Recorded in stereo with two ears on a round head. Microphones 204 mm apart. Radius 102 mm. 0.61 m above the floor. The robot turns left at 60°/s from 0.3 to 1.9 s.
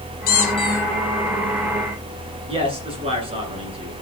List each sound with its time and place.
0.3 s a squeak: 40° left, 3.5 m; by 0.8 s 10° left, 3.5 m
2.5 s a man speaking: 25° right (ahead or behind), 9 m